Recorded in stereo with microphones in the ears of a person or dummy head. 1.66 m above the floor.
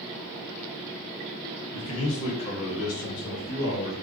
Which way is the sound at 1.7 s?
30° left (ahead or behind).